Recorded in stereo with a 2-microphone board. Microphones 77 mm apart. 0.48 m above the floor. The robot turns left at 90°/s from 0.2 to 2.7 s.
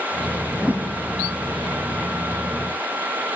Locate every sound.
0.5 s a whoosh: 5° right, 3.5 m; by 0.9 s 45° right, 3.5 m